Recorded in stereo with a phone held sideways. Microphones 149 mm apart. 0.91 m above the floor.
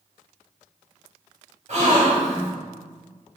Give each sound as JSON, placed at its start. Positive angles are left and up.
{"t": 1.7, "sound": "a gasp", "side_deg": -55, "distance_m": 2.5}